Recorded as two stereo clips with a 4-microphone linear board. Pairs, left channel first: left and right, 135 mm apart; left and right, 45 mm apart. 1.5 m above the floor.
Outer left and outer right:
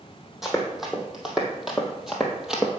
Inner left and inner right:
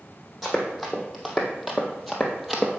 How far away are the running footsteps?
About 2.5 m.